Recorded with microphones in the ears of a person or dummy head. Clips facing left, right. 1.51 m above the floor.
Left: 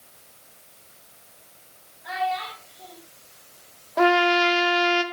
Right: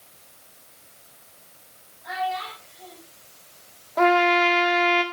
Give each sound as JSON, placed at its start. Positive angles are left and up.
{"t": 2.0, "sound": "a child speaking", "side_deg": 10, "distance_m": 6.5}
{"t": 4.0, "sound": "a trumpet", "side_deg": 20, "distance_m": 1.6}